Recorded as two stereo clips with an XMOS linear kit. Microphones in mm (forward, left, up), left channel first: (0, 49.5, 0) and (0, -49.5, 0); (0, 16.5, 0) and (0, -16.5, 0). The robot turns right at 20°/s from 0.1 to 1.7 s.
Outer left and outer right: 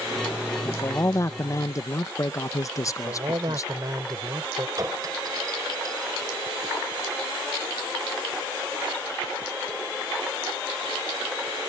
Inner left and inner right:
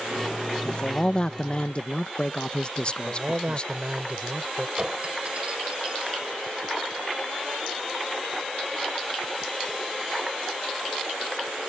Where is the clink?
40° right (ahead or behind).